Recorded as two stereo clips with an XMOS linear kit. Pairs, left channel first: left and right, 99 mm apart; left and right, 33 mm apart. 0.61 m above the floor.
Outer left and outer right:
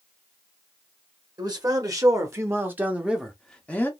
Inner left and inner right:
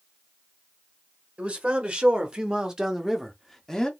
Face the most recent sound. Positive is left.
turn(degrees=20)  # may be behind; listen again after turning